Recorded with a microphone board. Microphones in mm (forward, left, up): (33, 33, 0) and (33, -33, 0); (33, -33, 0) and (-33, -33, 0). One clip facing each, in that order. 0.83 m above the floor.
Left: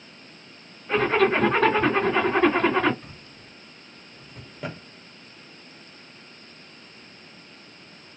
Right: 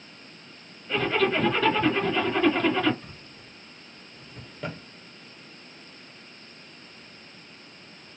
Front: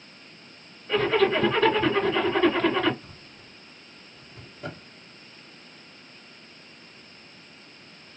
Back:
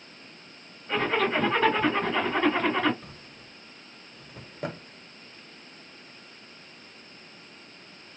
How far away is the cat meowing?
No cat meowing in this recording.